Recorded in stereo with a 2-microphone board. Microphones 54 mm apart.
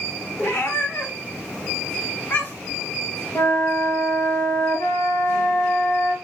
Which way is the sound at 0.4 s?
50° left (ahead or behind).